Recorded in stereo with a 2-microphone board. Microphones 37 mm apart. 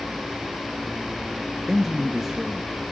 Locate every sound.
1.7 s a man speaking: 10° right (ahead or behind), 1.0 m